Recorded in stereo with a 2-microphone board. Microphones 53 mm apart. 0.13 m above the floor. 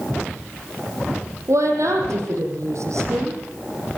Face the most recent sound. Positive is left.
turn(degrees=-75)  # may be behind; listen again after turning